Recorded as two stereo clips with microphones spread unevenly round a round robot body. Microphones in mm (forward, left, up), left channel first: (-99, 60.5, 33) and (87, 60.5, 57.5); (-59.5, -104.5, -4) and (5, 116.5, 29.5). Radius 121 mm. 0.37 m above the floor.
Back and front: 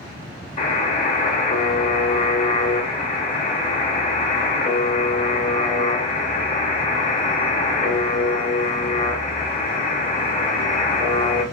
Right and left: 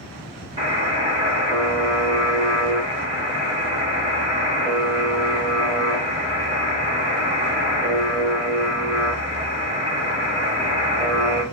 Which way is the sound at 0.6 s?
140° left.